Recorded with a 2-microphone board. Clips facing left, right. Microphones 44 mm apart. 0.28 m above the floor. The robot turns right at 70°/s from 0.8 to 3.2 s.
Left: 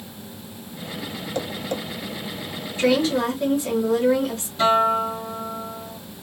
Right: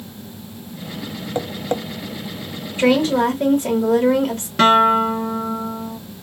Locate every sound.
1.4 s tapping: 25° right (ahead or behind), 0.5 m; by 1.8 s 45° right (ahead or behind), 0.5 m
2.8 s a woman speaking: 35° right (ahead or behind), 1.1 m
4.6 s a guitar: 75° right (ahead or behind), 0.6 m